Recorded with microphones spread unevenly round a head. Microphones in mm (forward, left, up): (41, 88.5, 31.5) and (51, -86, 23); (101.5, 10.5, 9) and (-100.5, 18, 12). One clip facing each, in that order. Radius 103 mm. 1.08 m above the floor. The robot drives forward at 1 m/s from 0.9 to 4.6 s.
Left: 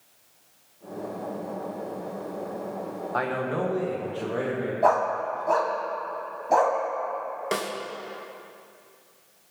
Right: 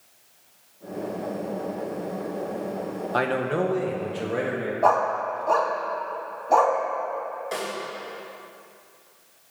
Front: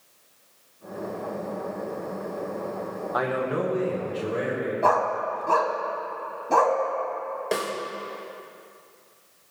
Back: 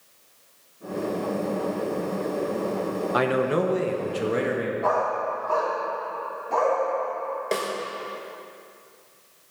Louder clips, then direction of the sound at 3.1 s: Right 3 dB, back 3 dB; 135° right.